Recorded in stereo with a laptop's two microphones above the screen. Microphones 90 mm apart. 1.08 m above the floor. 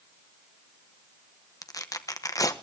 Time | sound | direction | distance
1.6 | tearing paper | 45° left (ahead or behind) | 0.9 m